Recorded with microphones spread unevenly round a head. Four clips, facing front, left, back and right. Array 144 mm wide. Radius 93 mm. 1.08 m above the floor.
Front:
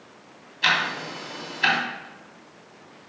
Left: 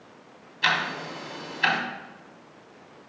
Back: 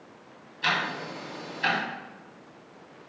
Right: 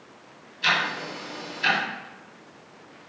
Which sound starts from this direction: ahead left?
Ticking, at 0.6 s.